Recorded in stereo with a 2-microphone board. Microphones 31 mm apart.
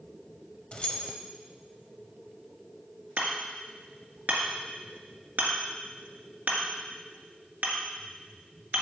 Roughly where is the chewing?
I don't hear chewing.